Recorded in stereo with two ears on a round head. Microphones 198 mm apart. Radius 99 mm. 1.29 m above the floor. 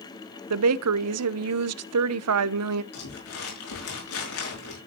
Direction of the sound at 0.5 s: 75° right (ahead or behind).